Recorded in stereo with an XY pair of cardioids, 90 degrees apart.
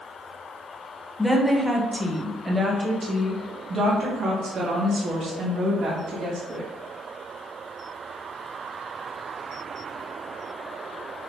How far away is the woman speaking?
About 1.6 m.